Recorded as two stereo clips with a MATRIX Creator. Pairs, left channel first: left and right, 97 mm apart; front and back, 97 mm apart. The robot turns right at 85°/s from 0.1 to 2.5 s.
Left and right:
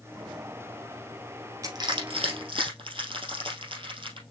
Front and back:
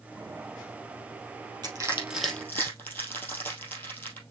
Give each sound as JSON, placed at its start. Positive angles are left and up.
{"t": 1.6, "sound": "crushing", "azimuth_deg": -140, "distance_m": 3.0}